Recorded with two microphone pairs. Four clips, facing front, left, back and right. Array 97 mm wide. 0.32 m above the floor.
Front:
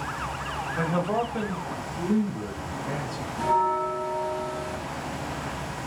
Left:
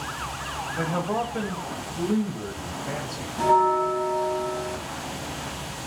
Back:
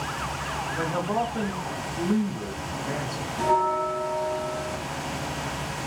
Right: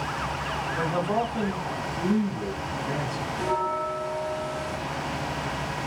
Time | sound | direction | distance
0.8 | a man speaking | 5° right | 1.1 m
3.4 | a bell | 100° left | 1.1 m